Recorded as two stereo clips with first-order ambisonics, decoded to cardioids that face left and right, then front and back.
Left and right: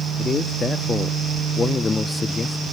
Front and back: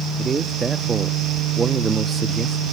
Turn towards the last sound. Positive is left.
turn(degrees=135)